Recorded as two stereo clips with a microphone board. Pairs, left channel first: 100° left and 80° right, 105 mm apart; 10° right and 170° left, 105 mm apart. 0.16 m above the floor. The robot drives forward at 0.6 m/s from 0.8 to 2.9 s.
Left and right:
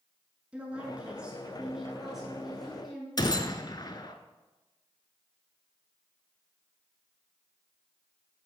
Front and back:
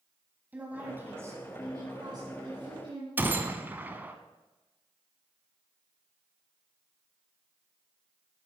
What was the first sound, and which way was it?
A woman speaking, 140° right.